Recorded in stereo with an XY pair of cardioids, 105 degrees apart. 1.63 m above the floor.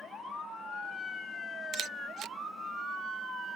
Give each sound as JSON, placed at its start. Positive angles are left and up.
{"t": 1.7, "sound": "a camera shutter", "azimuth_deg": -65}